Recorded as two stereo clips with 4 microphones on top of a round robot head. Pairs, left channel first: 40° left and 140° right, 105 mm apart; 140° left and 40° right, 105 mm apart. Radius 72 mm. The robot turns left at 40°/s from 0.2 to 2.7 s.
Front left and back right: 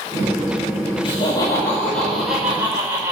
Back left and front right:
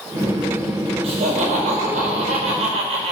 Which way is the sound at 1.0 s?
5° right.